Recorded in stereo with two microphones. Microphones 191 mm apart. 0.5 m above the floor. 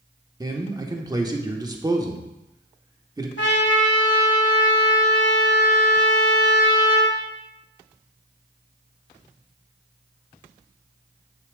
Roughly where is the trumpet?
Left.